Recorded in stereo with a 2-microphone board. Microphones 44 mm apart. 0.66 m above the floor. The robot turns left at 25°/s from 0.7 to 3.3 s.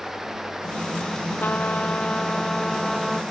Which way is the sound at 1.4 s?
45° left.